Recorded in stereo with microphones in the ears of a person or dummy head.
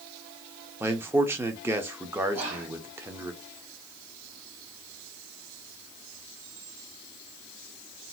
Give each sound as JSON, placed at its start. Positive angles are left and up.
{"t": 0.8, "sound": "a man speaking", "side_deg": -10, "distance_m": 0.6}
{"t": 2.3, "sound": "whispering", "side_deg": -30, "distance_m": 1.2}